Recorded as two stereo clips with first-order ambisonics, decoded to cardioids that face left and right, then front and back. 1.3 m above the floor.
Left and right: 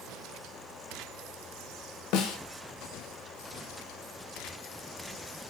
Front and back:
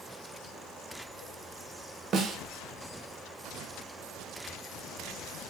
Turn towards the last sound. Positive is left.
turn(degrees=120)